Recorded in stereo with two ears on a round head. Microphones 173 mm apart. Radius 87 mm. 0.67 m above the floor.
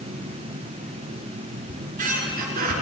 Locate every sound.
1.7 s a squeak: 50° right (ahead or behind), 4 m